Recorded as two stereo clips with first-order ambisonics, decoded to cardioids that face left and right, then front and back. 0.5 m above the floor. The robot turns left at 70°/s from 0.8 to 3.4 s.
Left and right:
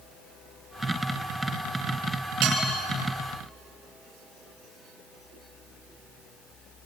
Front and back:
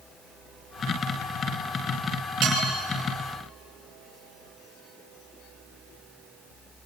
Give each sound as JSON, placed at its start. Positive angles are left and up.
{"t": 2.4, "sound": "dishes clattering", "azimuth_deg": -125, "distance_m": 7.0}